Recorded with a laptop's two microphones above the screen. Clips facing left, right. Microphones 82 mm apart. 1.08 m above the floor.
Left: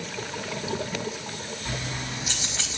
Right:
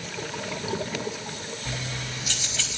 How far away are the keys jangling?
About 4.5 m.